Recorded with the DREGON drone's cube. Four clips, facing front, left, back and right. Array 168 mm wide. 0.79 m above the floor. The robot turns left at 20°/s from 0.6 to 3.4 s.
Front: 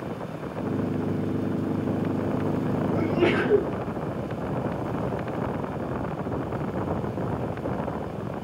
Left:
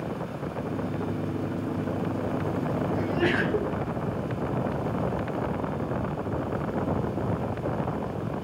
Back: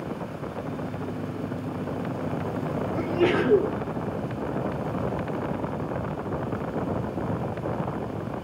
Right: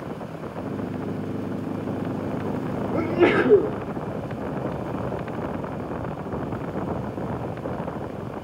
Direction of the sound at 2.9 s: 90° right.